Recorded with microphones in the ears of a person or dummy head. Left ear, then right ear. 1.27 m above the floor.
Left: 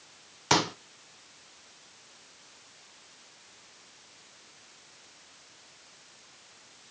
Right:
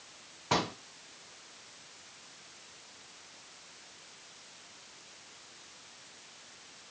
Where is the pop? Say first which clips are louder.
Left 5 dB; 75° left (ahead or behind), 0.6 m.